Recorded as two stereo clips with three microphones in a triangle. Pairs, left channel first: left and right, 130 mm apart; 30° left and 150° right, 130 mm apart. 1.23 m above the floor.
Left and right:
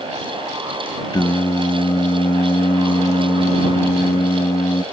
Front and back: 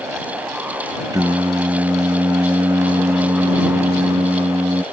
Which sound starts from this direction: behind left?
Singing, at 1.1 s.